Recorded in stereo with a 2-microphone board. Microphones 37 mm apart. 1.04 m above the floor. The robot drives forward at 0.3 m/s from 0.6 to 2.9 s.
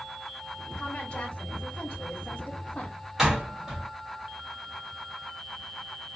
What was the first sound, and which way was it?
A woman speaking, 30° left (ahead or behind).